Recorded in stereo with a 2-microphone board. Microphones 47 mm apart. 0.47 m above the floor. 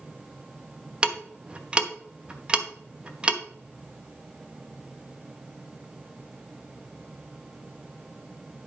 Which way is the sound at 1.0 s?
25° right (ahead or behind).